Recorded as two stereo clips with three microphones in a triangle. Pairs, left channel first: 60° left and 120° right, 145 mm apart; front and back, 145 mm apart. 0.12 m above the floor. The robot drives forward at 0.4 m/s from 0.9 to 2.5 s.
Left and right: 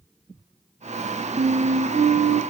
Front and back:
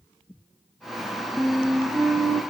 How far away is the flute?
About 0.5 m.